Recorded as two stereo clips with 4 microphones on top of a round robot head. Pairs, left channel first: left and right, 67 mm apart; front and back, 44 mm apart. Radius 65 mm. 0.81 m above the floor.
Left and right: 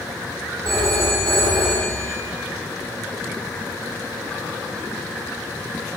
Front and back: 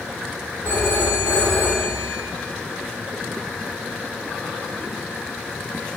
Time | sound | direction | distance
0.7 | a phone ringing | 125° right | 2 m